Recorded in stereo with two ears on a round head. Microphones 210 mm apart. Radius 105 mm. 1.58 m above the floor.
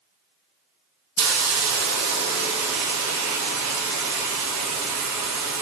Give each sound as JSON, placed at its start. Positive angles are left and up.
{"t": 1.2, "sound": "a hiss", "side_deg": -80, "distance_m": 0.8}